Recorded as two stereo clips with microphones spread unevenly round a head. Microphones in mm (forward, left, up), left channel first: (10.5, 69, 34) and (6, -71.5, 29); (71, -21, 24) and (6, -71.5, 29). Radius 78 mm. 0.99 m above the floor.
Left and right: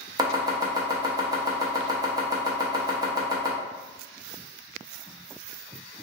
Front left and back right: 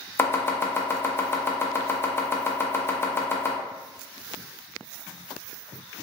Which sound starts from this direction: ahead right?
Chopping, at 0.2 s.